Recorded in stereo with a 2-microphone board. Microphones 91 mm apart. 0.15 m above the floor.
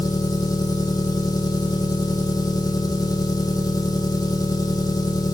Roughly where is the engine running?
Left.